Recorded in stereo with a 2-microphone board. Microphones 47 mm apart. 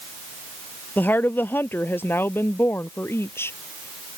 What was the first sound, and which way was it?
A woman speaking, 45° left (ahead or behind).